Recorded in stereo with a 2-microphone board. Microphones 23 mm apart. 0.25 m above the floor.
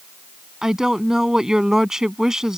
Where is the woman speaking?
30° right (ahead or behind).